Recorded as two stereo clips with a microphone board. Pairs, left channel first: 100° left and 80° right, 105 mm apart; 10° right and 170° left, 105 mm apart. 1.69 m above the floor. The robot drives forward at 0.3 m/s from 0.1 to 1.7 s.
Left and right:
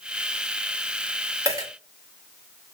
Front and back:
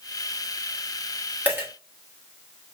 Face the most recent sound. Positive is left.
turn(degrees=-125)